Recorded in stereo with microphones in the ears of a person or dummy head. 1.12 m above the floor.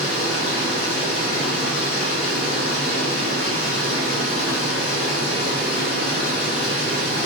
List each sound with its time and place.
0.0 s running water: 55° left (ahead or behind), 1.4 m